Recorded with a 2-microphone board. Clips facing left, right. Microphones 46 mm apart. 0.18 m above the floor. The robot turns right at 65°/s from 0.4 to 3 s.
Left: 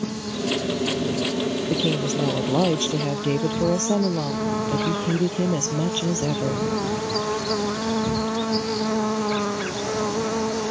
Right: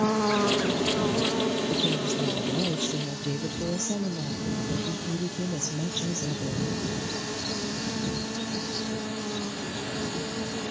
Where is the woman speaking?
40° left; by 6.7 s 125° left.